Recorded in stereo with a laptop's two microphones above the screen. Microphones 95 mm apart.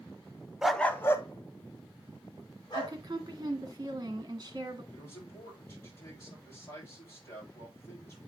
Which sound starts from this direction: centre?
A dog barking, at 0.6 s.